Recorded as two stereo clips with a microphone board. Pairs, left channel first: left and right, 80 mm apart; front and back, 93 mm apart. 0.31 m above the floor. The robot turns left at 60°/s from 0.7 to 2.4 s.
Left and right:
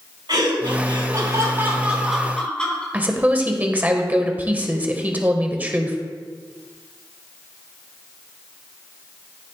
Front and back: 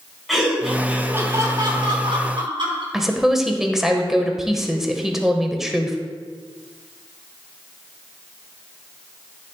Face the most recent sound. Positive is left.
turn(degrees=-100)